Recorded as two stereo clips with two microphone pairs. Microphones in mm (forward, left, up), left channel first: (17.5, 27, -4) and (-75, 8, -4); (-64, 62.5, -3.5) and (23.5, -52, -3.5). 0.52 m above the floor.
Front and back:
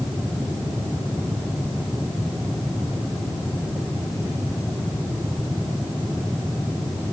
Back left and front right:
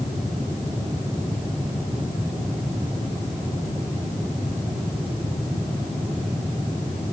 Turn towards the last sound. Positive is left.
No sound to turn to.